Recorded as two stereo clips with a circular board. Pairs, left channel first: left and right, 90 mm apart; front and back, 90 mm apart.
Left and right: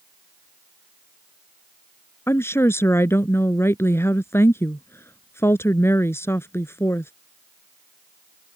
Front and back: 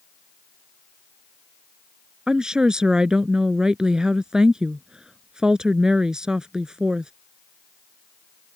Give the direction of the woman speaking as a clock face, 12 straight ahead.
8 o'clock.